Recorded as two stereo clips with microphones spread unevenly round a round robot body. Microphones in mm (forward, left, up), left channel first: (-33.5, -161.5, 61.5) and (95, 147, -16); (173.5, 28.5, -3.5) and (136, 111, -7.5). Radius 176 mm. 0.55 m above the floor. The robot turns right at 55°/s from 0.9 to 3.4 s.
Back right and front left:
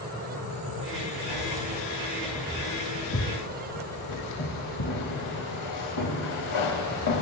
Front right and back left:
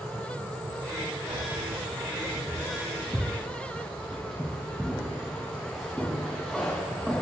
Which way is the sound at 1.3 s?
90° left.